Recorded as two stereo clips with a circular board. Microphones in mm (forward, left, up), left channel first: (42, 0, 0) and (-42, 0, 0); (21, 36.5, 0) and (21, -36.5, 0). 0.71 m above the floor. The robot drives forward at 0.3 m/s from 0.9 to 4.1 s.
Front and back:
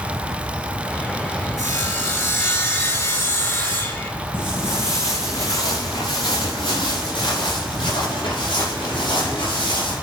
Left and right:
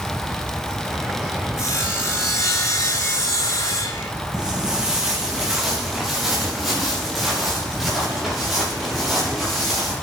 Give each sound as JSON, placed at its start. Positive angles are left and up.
{"t": 1.6, "sound": "sawing", "azimuth_deg": 45, "distance_m": 4.5}
{"t": 4.3, "sound": "footsteps", "azimuth_deg": -10, "distance_m": 2.5}